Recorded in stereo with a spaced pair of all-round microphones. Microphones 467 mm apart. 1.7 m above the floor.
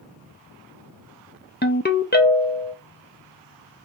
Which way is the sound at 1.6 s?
20° left (ahead or behind).